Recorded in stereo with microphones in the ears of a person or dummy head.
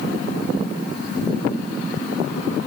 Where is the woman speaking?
I don't hear a woman speaking.